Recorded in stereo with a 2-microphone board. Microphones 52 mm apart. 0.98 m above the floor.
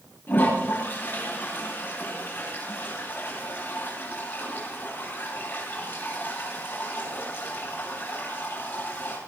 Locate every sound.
0.3 s a toilet flushing: 45° left (ahead or behind), 9 m